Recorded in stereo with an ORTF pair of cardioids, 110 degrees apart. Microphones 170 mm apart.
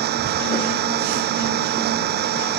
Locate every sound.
0.0 s an engine running: 70° right